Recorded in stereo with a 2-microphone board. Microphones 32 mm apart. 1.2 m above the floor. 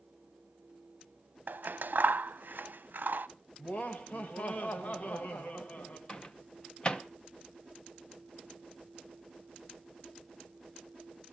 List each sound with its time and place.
1.5 s scissors: 65° right (ahead or behind), 0.6 m
3.6 s laughter: 50° left (ahead or behind), 1.4 m
6.1 s a microwave: 25° left (ahead or behind), 0.8 m